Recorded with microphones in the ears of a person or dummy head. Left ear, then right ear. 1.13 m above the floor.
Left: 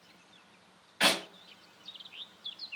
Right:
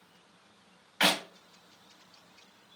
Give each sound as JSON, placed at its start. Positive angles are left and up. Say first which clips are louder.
{"t": 1.0, "sound": "a clap", "louder": "right 1 dB", "side_deg": -15, "distance_m": 1.0}